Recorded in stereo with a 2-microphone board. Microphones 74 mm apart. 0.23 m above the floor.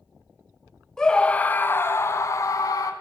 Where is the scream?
10° left (ahead or behind), 1.2 m; by 2.9 s 50° left (ahead or behind), 1.8 m.